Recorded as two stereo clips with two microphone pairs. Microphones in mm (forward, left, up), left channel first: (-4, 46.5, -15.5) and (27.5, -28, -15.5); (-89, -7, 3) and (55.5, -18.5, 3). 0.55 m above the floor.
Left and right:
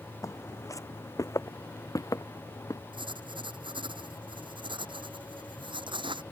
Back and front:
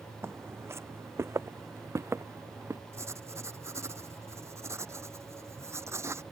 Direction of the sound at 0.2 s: 70° left.